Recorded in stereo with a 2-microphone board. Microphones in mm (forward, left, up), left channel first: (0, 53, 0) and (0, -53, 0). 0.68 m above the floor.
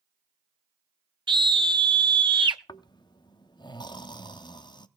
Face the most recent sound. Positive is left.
turn(degrees=40)  # may be behind; listen again after turning